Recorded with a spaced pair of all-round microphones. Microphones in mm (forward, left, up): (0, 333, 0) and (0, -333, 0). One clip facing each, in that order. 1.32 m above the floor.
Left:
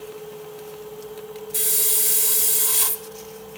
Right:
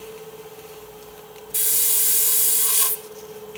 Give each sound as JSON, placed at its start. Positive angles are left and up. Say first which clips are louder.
{"t": 1.5, "sound": "a hiss", "louder": "left 6 dB", "side_deg": -10, "distance_m": 0.9}